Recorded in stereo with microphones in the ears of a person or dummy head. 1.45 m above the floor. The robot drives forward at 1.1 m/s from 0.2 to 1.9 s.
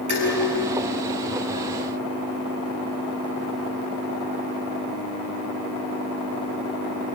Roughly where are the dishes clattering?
Right.